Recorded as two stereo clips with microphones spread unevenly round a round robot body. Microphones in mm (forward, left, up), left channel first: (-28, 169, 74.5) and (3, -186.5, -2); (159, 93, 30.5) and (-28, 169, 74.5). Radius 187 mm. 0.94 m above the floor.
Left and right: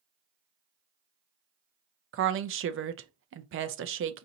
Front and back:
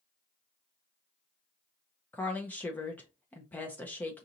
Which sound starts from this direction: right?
A woman speaking, at 2.1 s.